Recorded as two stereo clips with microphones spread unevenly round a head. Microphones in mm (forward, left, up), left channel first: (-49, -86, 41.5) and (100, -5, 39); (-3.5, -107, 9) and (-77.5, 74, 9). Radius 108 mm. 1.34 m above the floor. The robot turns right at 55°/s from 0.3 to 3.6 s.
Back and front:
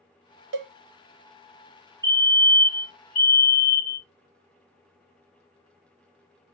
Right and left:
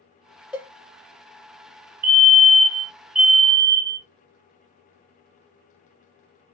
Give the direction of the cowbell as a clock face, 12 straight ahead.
11 o'clock.